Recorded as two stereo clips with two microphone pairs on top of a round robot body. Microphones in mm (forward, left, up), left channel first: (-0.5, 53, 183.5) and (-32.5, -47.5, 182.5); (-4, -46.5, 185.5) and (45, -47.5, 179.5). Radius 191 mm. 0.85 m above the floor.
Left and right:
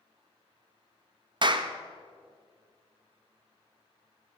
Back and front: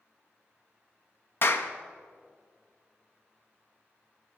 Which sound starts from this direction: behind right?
A clap, at 1.4 s.